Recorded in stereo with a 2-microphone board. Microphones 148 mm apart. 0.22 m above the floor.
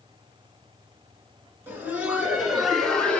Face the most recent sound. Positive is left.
turn(degrees=10)  # may be behind; listen again after turning